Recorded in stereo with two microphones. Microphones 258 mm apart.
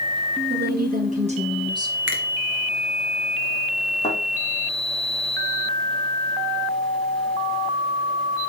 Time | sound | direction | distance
0.5 | a woman speaking | 45° right (ahead or behind) | 2.5 m
2.1 | a finger snap | 50° right (ahead or behind) | 1.7 m
4.0 | a thud | 30° left (ahead or behind) | 5.5 m